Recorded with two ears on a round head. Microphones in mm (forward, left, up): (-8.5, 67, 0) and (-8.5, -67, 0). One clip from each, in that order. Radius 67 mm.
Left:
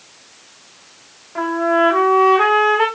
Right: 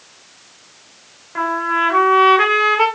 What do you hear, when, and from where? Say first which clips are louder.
1.4 s a trumpet: left 1 dB; 40° right (ahead or behind), 2.5 m